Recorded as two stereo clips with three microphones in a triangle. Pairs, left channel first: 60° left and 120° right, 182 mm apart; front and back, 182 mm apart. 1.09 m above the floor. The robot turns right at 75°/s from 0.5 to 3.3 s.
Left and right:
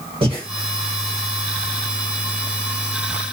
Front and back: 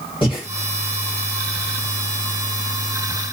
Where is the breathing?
60° right, 1.5 m.